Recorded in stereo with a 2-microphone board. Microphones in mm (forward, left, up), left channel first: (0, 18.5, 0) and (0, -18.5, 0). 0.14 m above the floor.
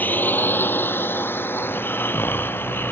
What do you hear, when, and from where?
0.0 s a drone: 55° left (ahead or behind); by 2.9 s 80° left
1.6 s snoring: 75° left (ahead or behind)